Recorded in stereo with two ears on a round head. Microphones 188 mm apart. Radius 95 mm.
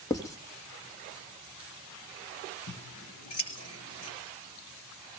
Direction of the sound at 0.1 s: 15° left (ahead or behind).